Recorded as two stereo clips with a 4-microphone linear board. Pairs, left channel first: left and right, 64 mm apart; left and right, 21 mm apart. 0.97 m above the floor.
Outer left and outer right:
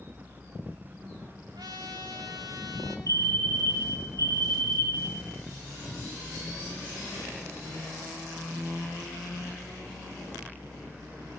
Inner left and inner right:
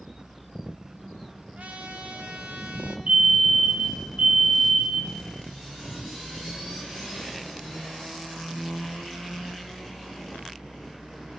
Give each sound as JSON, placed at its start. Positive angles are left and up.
{"t": 1.6, "sound": "a trumpet", "side_deg": -80, "distance_m": 2.5}
{"t": 3.1, "sound": "a fire alarm", "side_deg": -65, "distance_m": 3.0}